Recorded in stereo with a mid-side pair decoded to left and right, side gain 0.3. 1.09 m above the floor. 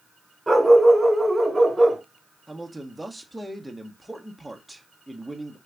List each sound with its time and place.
0.5 s a dog barking: 20° right, 1.9 m
2.5 s a man speaking: 5° right, 1.3 m